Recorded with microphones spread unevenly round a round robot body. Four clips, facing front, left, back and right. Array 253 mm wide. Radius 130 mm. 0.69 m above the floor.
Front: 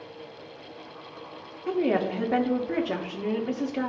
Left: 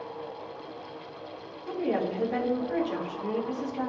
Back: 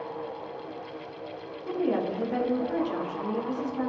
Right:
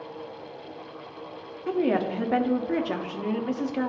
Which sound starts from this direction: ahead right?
A woman speaking, at 1.7 s.